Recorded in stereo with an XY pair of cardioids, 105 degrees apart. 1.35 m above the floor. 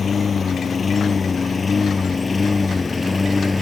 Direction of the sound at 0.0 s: 35° left.